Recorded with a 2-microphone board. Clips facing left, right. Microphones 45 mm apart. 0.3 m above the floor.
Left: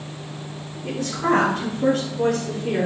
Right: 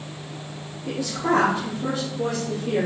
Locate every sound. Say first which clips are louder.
0.8 s a woman speaking: left 2 dB; 65° left (ahead or behind), 4 m; by 2.9 s 60° left (ahead or behind), 5 m